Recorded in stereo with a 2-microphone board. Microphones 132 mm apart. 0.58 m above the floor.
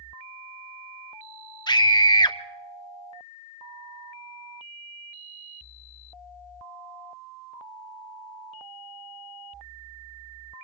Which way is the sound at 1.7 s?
35° left (ahead or behind).